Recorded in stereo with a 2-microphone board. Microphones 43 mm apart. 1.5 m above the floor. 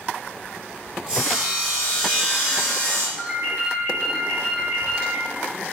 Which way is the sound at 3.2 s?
50° right (ahead or behind).